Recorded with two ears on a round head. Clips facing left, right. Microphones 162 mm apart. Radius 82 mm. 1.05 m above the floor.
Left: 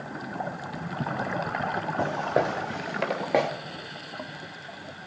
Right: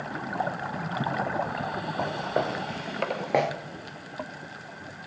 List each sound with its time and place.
2.0 s footsteps: 20° left (ahead or behind), 1.7 m; by 3.5 s centre (ahead or behind), 1.3 m